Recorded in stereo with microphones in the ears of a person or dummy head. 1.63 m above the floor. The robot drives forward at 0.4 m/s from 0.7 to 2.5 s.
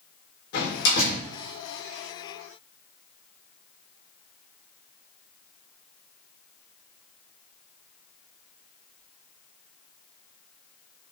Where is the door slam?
70° left (ahead or behind), 4.5 m; by 1.2 s 65° left (ahead or behind), 4.5 m.